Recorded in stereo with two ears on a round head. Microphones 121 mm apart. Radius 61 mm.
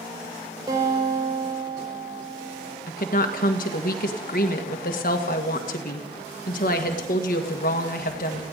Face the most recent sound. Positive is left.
turn(degrees=65)  # may be behind; listen again after turning